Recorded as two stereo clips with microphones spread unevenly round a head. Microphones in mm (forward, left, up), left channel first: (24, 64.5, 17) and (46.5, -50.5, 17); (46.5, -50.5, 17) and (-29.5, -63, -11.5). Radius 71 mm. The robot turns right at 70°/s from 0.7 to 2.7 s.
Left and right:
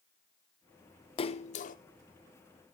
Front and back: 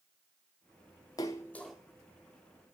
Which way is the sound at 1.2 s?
55° left.